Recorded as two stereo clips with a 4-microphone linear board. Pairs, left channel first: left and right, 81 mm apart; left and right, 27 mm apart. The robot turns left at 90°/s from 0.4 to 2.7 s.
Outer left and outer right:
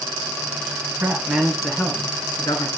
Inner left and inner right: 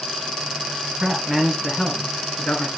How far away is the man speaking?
About 2.0 m.